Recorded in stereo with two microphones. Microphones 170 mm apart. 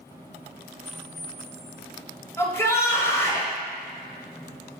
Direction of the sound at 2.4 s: 15° left (ahead or behind).